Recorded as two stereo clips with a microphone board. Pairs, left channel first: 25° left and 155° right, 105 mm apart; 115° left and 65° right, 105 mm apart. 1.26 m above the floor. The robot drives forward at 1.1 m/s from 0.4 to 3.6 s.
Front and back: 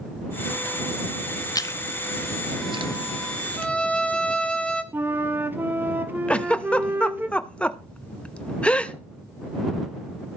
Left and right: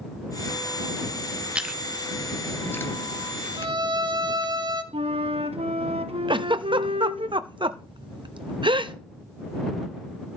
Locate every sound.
1.6 s chewing: 5° left, 0.7 m; by 4.5 s straight behind, 1.9 m
3.6 s a violin: 50° right, 1.4 m; by 4.8 s 55° right, 1.4 m
4.9 s a flute: 85° right, 1.2 m
6.3 s a giggle: 55° right, 0.7 m